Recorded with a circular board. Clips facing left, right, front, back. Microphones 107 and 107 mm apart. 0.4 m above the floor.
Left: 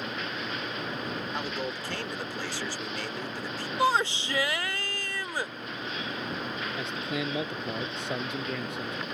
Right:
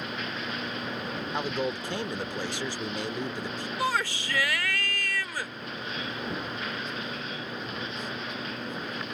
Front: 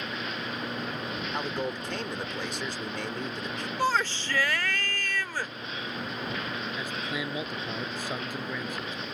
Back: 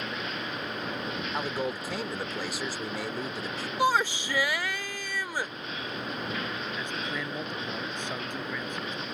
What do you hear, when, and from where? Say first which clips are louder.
1.3 s a man speaking: right 3 dB, back 1 dB; 105° right
3.8 s a shout: left 4 dB, back 2 dB; 115° left
6.8 s a man speaking: left 3 dB, even; 80° left